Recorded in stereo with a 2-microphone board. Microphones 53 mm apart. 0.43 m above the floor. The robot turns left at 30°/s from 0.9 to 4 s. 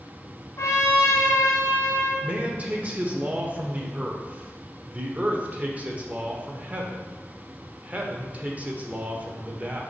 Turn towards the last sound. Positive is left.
turn(degrees=-115)